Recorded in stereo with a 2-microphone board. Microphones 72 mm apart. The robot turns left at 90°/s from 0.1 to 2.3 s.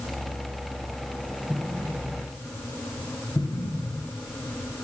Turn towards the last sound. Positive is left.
turn(degrees=60)  # may be behind; listen again after turning